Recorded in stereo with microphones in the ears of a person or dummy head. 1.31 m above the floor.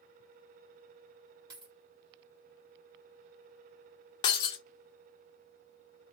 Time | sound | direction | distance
1.5 | a dropped coin | 25° right (ahead or behind) | 1.4 m
4.2 | breaking glass | 30° left (ahead or behind) | 0.6 m